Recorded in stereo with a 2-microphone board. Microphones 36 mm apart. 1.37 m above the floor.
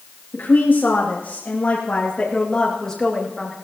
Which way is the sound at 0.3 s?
75° left (ahead or behind).